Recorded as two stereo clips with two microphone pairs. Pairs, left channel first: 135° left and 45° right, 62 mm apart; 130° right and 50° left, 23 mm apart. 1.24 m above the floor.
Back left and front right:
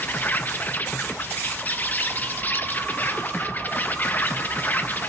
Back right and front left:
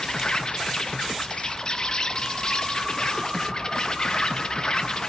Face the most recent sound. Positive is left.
turn(degrees=-175)